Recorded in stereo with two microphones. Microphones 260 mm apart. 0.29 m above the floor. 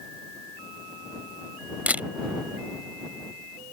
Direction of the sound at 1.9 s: 5° right (ahead or behind).